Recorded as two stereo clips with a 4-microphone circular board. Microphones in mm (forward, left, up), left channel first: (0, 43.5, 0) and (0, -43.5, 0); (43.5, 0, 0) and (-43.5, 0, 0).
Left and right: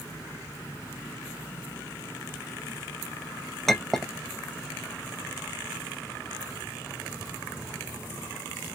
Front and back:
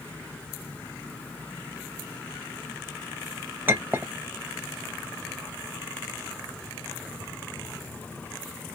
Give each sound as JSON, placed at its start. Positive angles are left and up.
{"t": 3.7, "sound": "a clink", "azimuth_deg": 175, "distance_m": 0.5}